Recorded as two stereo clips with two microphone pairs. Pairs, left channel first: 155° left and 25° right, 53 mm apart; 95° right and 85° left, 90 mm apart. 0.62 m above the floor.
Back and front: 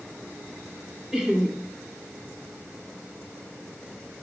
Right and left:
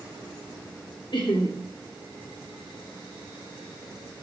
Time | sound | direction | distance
1.1 | laughter | 100° right | 1.3 m